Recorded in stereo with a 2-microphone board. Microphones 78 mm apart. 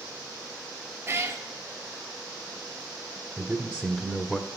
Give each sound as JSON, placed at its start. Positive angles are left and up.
{"t": 1.1, "sound": "a cat meowing", "side_deg": -35, "distance_m": 0.9}
{"t": 3.4, "sound": "a man speaking", "side_deg": 10, "distance_m": 1.1}